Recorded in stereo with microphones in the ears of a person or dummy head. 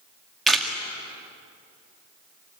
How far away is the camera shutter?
About 2 m.